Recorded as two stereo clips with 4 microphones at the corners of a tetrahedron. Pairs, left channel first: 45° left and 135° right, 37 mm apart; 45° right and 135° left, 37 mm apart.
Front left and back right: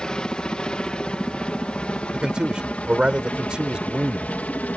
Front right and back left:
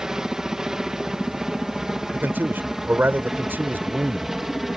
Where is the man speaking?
160° left.